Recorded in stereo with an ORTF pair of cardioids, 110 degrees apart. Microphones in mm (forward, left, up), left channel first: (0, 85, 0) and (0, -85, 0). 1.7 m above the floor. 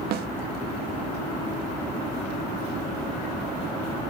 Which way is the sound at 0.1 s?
65° right.